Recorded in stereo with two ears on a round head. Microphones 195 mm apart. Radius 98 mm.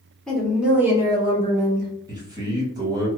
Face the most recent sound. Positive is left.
turn(degrees=-20)  # may be behind; listen again after turning